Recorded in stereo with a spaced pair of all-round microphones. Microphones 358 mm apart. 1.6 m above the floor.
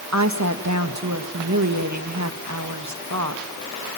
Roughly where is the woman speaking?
Right.